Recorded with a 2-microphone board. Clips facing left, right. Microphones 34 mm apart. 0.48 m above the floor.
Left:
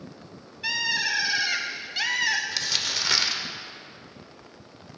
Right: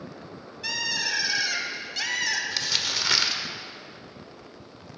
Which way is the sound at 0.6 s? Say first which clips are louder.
Left 3 dB; 20° left (ahead or behind).